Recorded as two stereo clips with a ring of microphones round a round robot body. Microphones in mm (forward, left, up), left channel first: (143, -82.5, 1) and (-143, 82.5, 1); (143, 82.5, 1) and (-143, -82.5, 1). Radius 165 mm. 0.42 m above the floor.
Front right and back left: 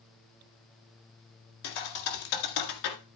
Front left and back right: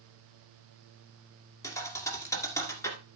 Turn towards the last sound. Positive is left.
turn(degrees=-50)